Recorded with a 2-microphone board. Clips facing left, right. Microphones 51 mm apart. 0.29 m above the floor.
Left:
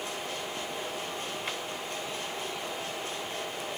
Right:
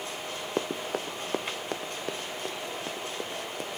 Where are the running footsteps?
70° right (ahead or behind); by 3.7 s 55° right (ahead or behind).